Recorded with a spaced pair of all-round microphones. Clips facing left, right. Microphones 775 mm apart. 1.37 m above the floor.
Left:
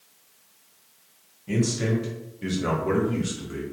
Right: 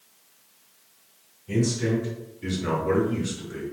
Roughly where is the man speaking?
Left.